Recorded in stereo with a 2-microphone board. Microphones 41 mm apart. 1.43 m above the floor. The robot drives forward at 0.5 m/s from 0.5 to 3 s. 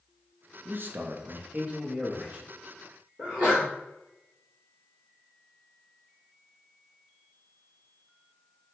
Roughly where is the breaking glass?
No breaking glass in this recording.